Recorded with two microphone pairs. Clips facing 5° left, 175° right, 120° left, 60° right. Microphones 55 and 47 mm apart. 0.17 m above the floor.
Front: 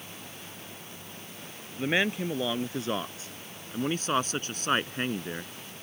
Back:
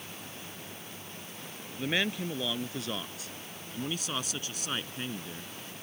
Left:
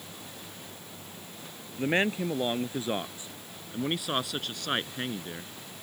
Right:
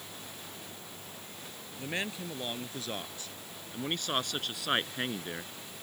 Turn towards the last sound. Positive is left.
turn(degrees=5)